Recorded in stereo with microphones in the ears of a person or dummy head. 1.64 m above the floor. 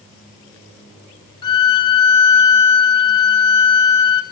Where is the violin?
25° left (ahead or behind), 0.9 m.